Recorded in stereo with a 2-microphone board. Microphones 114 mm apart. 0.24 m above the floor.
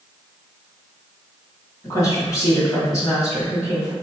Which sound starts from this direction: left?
A woman speaking, at 1.8 s.